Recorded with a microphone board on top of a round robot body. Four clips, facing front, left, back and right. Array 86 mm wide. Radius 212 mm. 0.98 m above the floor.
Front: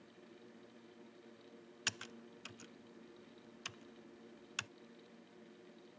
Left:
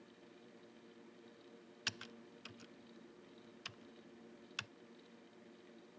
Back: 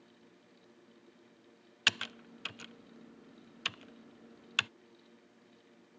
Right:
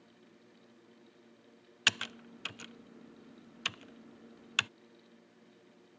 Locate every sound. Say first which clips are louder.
1.9 s typing on a keyboard: right 13 dB, back 10 dB; 130° right